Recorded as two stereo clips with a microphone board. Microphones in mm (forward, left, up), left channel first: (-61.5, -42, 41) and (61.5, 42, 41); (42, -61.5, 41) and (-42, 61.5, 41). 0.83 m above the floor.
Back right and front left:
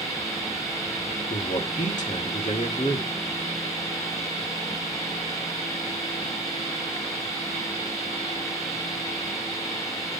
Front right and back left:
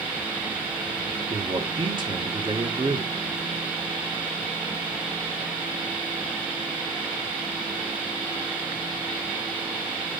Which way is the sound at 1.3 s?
Straight behind.